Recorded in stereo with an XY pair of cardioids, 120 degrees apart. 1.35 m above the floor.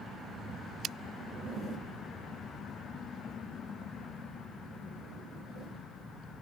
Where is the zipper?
55° right, 4.5 m.